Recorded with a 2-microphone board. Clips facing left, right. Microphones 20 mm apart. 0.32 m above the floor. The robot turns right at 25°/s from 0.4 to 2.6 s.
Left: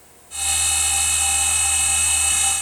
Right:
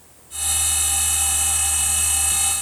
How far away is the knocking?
No knocking in this recording.